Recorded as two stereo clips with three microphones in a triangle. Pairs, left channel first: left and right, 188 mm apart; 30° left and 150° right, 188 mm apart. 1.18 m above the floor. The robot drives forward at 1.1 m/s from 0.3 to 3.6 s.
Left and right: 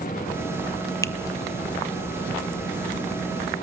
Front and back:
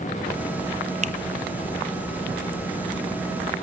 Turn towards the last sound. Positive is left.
turn(degrees=175)